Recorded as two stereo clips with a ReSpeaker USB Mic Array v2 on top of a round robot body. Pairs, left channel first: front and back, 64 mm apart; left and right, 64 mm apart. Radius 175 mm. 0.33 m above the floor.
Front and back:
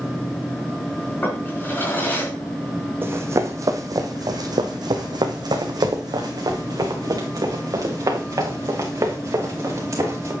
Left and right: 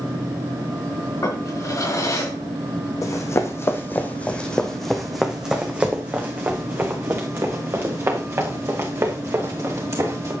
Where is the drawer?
60° left, 3.5 m.